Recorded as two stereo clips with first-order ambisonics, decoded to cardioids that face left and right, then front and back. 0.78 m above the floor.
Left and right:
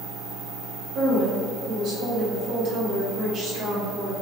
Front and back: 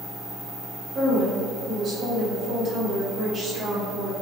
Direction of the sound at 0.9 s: 125° right.